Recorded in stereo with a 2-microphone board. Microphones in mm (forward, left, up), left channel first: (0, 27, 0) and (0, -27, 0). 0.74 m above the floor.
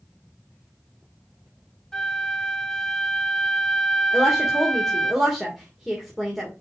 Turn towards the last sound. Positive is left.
turn(degrees=-5)  # may be behind; listen again after turning